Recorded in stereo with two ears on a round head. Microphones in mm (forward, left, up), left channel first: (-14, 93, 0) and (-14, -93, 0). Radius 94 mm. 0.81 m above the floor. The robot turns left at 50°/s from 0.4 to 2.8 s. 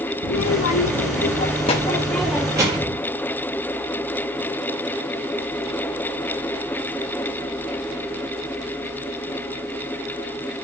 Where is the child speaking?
95° left, 0.7 m; by 3.0 s 25° right, 0.7 m.